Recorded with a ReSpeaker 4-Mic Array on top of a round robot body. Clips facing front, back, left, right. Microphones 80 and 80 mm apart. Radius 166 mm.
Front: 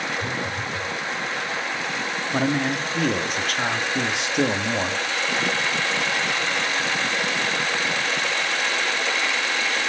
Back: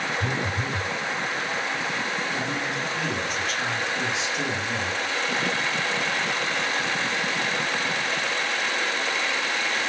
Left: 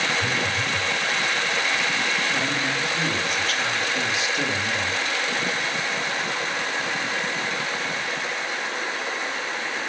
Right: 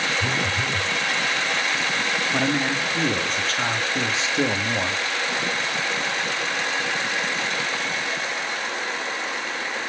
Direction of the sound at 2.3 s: 30° right.